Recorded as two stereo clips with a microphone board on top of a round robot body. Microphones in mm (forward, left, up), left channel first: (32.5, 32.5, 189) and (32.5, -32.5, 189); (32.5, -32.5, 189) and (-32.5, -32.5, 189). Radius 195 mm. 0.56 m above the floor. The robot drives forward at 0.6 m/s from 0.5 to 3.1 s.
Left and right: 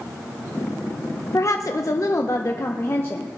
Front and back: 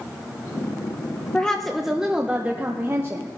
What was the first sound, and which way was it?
A woman speaking, 75° left.